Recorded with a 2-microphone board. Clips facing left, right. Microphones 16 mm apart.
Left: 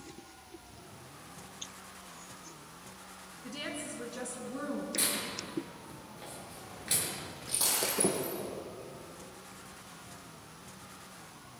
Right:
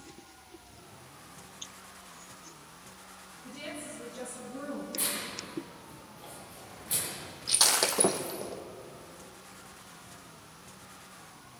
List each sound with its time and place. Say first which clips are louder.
3.4 s a woman speaking: left 2 dB; 50° left (ahead or behind), 6 m; by 4.8 s 35° left (ahead or behind), 5 m
5.0 s tearing paper: left 1 dB; 50° left (ahead or behind), 8.5 m
7.5 s breaking glass: right 7 dB; 50° right (ahead or behind), 2.5 m